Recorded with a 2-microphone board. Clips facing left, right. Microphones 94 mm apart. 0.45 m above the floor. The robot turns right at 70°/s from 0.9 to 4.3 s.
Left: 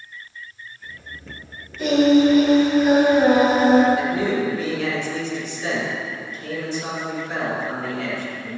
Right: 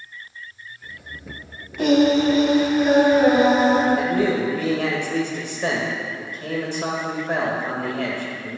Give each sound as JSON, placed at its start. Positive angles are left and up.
{"t": 1.8, "sound": "singing", "azimuth_deg": -75, "distance_m": 1.6}
{"t": 4.0, "sound": "a man speaking", "side_deg": -50, "distance_m": 1.8}